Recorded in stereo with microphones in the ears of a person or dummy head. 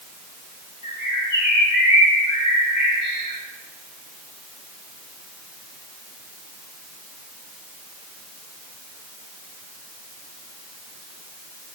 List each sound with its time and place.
0.8 s a bird: 35° left (ahead or behind), 2.5 m